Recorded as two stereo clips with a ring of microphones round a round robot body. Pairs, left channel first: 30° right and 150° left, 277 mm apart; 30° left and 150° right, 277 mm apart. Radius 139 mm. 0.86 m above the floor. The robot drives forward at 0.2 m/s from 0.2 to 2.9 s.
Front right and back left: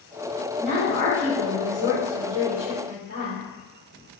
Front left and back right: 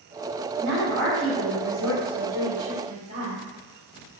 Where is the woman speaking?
140° left, 1.3 m; by 3.4 s 150° left, 1.7 m.